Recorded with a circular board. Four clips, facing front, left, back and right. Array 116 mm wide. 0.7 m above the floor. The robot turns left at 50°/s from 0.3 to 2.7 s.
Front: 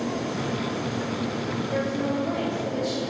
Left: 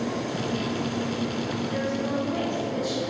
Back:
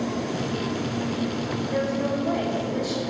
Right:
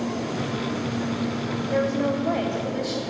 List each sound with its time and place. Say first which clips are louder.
1.7 s a woman speaking: right 8 dB, back 1 dB; 70° right, 3 m; by 3.0 s 125° right, 3 m